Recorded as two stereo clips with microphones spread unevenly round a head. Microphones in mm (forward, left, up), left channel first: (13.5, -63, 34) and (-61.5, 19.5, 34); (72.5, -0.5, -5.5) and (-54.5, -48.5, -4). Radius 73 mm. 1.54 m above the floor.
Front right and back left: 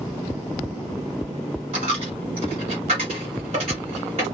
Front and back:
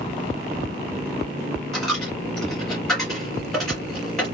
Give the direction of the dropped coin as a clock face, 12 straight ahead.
8 o'clock.